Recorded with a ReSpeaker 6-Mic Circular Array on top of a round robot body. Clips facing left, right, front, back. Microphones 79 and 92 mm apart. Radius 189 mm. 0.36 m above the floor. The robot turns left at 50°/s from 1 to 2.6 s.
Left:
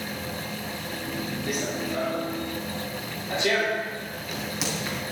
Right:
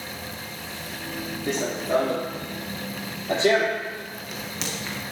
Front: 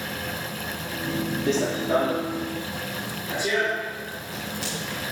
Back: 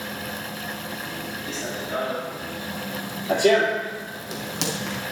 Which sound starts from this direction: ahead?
Running footsteps, at 1.5 s.